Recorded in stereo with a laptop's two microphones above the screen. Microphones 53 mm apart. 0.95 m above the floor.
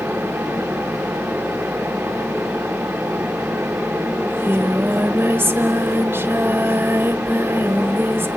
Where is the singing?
40° right (ahead or behind), 1.3 m.